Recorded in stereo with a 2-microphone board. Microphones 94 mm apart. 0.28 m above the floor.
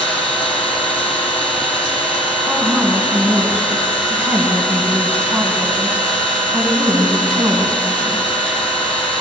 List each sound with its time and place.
0.0 s an engine running: 85° left, 3 m
2.5 s a woman speaking: 15° right (ahead or behind), 2.5 m